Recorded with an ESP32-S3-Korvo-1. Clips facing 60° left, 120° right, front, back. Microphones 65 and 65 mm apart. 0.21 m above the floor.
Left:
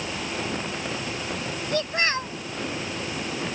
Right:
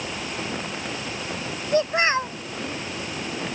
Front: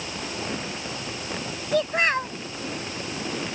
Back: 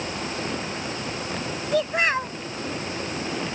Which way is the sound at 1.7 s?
95° right.